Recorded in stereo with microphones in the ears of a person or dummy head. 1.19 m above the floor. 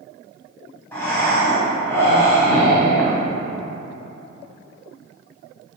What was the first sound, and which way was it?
Breathing, 15° left (ahead or behind).